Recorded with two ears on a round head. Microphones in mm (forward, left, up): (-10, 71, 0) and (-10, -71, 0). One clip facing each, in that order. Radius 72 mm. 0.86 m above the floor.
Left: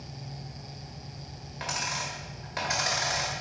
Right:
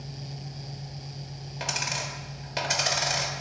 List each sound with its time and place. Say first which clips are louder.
1.6 s a dropped coin: right 1 dB; 35° right (ahead or behind), 1.4 m